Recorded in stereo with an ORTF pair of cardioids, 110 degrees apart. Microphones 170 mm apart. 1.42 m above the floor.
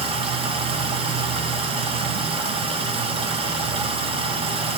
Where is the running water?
35° right, 0.8 m.